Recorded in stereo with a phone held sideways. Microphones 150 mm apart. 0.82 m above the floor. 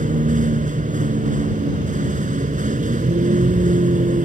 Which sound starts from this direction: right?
A vehicle, at 0.0 s.